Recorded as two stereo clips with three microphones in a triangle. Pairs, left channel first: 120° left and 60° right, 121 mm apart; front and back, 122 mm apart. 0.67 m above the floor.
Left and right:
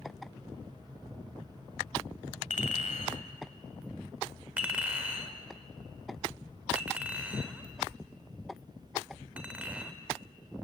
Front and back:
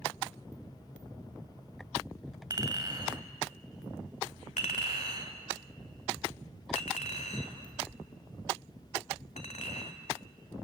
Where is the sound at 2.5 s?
125° left, 2 m.